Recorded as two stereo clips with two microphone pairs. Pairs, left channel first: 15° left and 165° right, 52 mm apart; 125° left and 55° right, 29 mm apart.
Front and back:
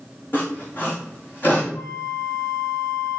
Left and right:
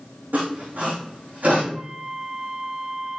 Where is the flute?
5° left, 2 m.